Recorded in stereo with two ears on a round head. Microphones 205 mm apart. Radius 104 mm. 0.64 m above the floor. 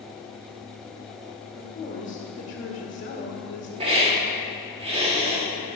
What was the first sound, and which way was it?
A woman speaking, 35° left (ahead or behind).